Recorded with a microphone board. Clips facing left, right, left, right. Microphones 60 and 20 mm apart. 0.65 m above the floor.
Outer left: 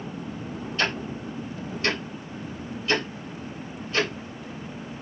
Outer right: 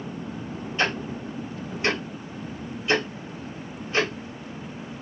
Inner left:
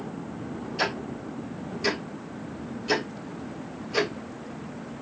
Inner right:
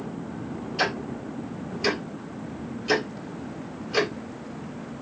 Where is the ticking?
20° right (ahead or behind), 2 m.